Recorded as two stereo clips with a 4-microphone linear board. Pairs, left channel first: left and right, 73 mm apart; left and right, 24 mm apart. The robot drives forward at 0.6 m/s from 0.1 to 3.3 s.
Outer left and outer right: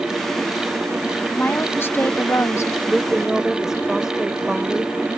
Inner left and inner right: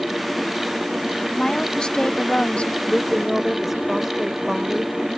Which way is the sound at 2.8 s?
5° right (ahead or behind).